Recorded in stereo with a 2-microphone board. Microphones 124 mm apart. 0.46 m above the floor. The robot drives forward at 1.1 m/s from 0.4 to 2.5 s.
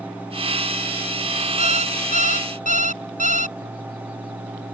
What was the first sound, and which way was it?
An alarm clock, 60° right (ahead or behind).